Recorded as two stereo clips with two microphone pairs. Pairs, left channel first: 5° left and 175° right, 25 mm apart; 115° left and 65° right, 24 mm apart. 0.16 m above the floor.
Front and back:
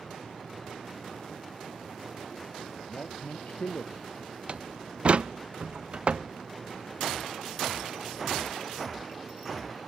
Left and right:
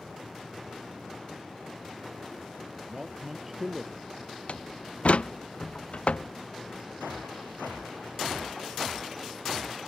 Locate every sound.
2.9 s a man speaking: 5° left; by 4.1 s 10° left
4.5 s a door slam: 140° left